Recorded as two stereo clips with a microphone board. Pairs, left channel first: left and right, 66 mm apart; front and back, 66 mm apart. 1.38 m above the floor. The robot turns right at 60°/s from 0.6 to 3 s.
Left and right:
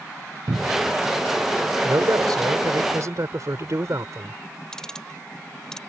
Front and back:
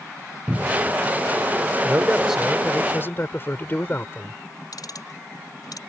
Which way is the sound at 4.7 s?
10° left.